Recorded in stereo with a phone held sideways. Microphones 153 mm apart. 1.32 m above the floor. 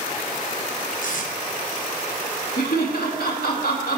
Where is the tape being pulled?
60° left (ahead or behind), 1.3 m.